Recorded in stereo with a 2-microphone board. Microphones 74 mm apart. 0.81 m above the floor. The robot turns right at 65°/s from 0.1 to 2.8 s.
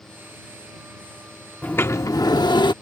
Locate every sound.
1.6 s a sliding door: 20° left; by 2.7 s 95° left